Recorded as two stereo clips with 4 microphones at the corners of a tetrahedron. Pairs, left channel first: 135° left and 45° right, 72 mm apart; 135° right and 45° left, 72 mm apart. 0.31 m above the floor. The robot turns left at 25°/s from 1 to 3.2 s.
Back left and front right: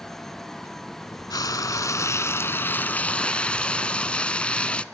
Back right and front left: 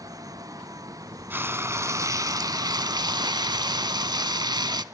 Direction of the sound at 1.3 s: 105° left.